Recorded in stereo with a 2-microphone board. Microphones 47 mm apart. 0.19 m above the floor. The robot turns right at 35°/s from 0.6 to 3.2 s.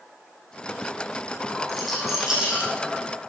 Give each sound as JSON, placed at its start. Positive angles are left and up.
{"t": 1.7, "sound": "a rattle", "side_deg": 10, "distance_m": 5.0}